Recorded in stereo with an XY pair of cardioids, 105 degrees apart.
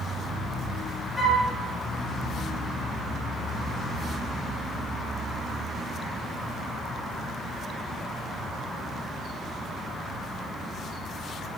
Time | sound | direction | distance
1.2 | a flute | 10° right | 3.5 m